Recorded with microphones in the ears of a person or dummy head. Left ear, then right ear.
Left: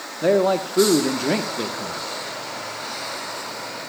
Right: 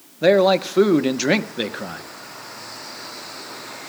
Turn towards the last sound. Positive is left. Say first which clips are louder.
# right 3 dB
turn(degrees=-65)  # may be behind; listen again after turning